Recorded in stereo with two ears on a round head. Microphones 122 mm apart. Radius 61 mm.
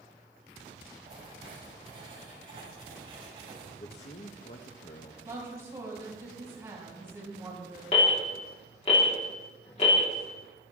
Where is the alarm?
50° left (ahead or behind), 3.5 m.